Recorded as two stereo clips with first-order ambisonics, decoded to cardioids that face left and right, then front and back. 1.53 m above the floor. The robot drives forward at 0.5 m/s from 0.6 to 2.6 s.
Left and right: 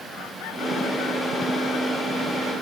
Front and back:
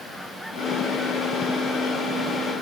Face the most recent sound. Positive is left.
No sound to turn to.